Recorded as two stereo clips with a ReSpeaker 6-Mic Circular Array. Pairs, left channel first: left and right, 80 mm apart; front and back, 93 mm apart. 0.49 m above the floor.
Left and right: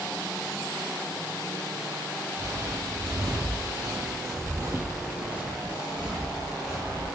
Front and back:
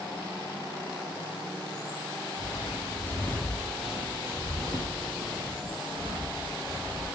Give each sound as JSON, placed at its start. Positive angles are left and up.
{"t": 2.4, "sound": "footsteps", "azimuth_deg": -45, "distance_m": 1.1}